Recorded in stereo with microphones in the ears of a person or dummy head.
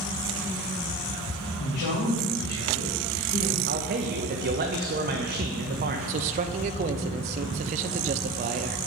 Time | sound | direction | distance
1.6 | a man speaking | 40° left (ahead or behind) | 2 m
3.7 | a man speaking | 45° right (ahead or behind) | 0.6 m
6.1 | a man speaking | 45° right (ahead or behind) | 0.6 m